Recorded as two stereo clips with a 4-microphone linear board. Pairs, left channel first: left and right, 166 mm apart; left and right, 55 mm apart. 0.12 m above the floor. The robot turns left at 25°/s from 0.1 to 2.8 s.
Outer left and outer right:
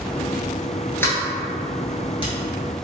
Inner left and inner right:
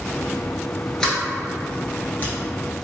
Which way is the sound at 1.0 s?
15° left (ahead or behind).